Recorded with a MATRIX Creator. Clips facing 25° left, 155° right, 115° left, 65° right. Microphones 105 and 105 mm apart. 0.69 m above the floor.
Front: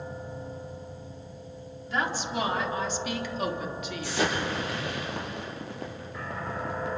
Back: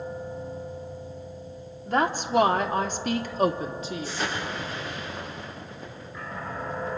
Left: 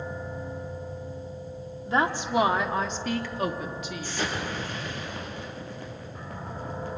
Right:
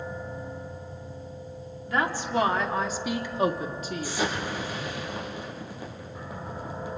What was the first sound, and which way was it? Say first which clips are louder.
A woman speaking: back 6 dB, left 2 dB; 170° left.